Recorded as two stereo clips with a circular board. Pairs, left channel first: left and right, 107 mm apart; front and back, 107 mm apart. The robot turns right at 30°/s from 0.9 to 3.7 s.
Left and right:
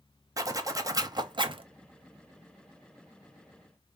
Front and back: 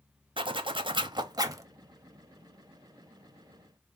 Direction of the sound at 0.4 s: 145° right.